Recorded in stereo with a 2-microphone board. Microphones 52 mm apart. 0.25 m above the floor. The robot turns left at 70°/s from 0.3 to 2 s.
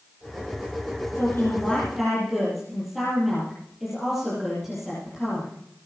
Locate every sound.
1.1 s a woman speaking: 60° left, 7.5 m; by 5.5 s straight ahead, 7.5 m